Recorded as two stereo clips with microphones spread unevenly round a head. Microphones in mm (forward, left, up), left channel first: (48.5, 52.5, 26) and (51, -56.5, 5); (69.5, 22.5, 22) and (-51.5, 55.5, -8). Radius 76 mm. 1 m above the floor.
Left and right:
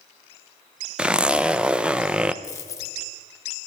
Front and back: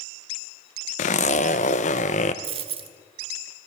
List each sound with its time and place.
1.0 s a zipper: 25° right, 0.7 m
2.4 s a dropped coin: 130° left, 0.7 m